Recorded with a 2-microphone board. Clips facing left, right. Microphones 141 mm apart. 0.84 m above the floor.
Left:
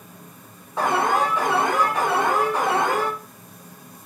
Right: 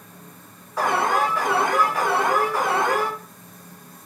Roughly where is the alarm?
Left.